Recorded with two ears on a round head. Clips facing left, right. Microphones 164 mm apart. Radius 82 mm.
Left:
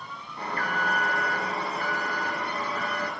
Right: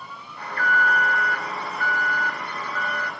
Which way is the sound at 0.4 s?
25° left (ahead or behind).